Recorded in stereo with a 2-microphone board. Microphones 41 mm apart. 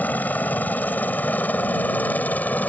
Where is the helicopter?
50° left (ahead or behind).